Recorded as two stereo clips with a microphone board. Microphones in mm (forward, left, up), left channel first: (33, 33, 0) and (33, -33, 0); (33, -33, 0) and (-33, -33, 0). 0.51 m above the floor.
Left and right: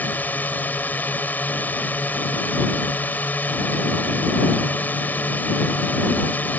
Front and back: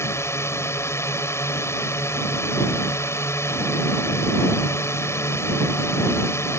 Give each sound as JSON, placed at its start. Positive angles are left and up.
{"t": 0.0, "sound": "a drone", "azimuth_deg": 35}